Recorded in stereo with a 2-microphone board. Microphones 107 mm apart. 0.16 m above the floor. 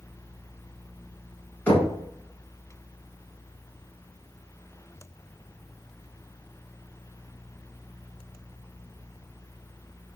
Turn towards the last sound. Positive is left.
turn(degrees=15)  # may be behind; listen again after turning